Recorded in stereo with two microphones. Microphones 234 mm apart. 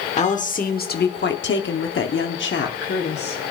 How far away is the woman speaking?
About 1.3 m.